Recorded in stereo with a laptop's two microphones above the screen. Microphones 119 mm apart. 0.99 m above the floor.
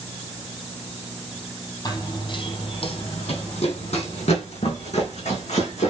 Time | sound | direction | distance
1.9 | running footsteps | 35° left (ahead or behind) | 1.3 m